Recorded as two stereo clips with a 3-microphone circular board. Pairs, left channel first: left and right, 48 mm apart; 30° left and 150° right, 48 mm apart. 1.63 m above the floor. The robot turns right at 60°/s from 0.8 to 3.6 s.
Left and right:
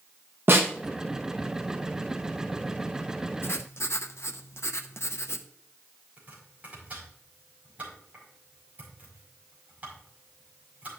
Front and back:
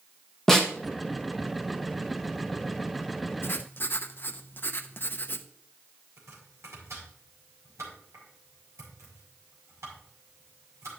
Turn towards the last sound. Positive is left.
turn(degrees=-150)